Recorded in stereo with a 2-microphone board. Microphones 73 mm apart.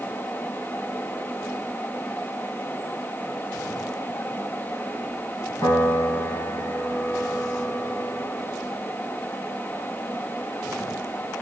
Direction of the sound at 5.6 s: 65° left (ahead or behind).